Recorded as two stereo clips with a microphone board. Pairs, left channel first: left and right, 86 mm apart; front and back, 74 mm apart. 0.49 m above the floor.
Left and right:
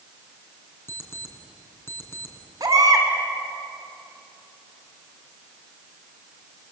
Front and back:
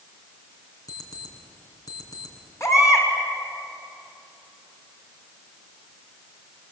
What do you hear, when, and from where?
0.9 s an alarm clock: 30° left, 3.5 m
2.6 s a baby crying: 45° right, 3 m